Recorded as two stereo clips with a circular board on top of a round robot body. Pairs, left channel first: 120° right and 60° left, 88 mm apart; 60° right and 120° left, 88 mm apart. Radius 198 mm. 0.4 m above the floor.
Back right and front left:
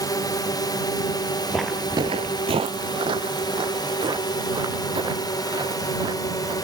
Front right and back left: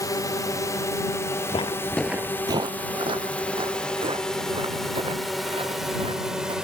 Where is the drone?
90° right; by 6.6 s 160° right.